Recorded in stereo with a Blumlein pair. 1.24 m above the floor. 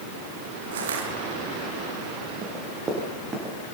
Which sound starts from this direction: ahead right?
Crushing, at 0.7 s.